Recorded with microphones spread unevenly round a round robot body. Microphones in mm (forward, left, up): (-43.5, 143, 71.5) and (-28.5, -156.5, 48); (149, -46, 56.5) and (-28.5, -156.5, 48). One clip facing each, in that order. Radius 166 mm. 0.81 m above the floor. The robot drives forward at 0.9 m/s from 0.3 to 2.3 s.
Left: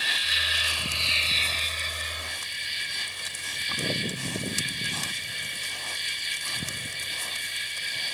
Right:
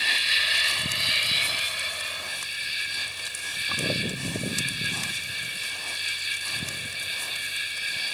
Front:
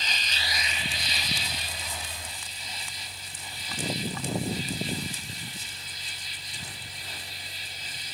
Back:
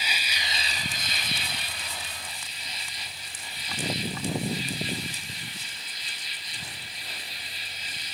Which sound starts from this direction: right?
An insect, at 0.0 s.